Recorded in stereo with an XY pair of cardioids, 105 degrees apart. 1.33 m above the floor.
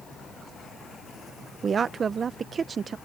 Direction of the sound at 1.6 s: 40° right.